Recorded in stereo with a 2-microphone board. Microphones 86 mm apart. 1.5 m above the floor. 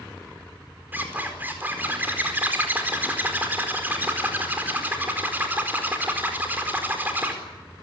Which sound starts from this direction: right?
A zipper, at 0.9 s.